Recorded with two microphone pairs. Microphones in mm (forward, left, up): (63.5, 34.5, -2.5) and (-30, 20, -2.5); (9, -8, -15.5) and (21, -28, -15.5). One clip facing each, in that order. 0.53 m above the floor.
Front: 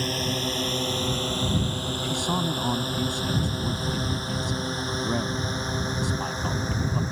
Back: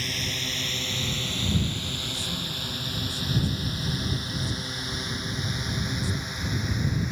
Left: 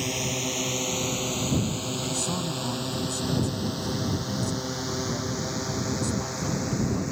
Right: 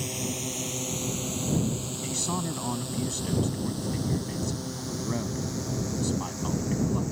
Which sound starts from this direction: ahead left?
A drone, at 0.0 s.